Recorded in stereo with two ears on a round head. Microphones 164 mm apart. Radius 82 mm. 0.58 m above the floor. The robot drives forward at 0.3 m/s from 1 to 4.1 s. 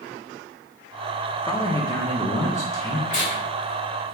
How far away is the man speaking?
About 0.6 m.